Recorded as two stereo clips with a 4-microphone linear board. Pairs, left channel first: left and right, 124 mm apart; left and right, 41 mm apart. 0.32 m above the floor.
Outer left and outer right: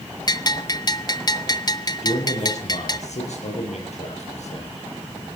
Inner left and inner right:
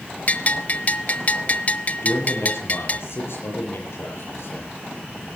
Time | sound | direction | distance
0.3 | a bell | 35° left (ahead or behind) | 0.9 m
2.0 | a man speaking | 65° left (ahead or behind) | 7.5 m